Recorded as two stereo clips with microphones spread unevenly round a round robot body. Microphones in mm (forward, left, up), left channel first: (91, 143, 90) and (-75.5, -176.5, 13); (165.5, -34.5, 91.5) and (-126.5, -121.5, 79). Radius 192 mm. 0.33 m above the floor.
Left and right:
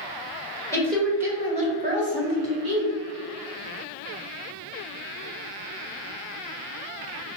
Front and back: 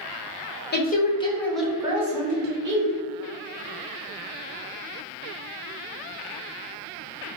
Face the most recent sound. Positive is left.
turn(degrees=-130)